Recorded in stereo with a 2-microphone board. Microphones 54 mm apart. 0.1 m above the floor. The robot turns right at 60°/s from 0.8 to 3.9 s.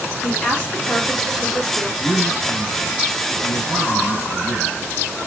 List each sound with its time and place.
0.2 s a woman speaking: 140° left, 2 m; by 1.9 s 155° right, 2 m
2.0 s a man speaking: 15° right, 2.5 m; by 4.8 s 100° left, 2.5 m